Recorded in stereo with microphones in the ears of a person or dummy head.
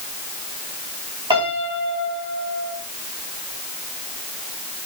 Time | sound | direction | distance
1.3 | a piano | 35° right (ahead or behind) | 3.5 m